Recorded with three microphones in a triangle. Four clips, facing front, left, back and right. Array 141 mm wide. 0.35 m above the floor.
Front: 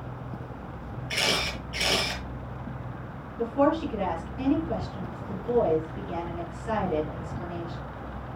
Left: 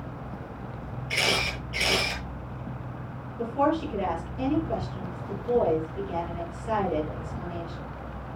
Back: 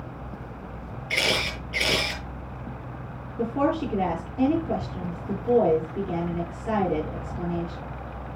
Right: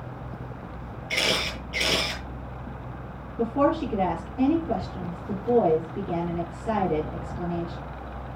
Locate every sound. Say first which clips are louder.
1.1 s a camera shutter: right 1 dB, back 2 dB; 145° right, 6 m
3.4 s a woman speaking: right 2 dB, front 1 dB; 130° right, 6.5 m